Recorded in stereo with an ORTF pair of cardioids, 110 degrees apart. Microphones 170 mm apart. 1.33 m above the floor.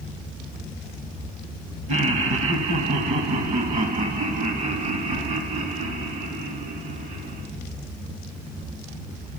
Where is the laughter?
45° right, 1.7 m; by 7.5 s 55° right, 5 m.